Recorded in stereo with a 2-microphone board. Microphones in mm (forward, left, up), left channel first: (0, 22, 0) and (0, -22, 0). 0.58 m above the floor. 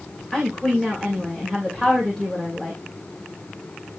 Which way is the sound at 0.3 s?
10° left (ahead or behind).